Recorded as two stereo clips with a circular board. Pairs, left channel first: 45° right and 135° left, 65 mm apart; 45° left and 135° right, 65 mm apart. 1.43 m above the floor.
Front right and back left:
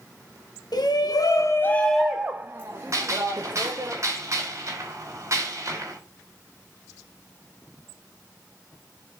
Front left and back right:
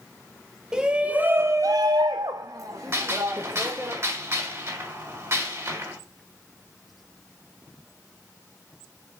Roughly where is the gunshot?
Behind.